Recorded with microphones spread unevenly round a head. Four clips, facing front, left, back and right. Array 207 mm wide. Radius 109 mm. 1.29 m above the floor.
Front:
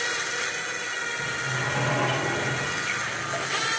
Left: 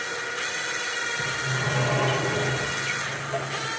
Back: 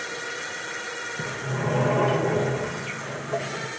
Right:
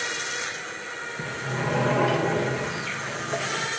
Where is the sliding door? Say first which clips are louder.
Right 2 dB, back 3 dB; 150° right, 1.7 m.